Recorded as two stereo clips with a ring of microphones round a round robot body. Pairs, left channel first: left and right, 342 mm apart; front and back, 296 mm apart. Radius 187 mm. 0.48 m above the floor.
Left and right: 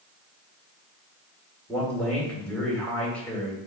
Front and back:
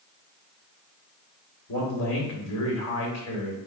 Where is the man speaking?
5° left, 1.8 m.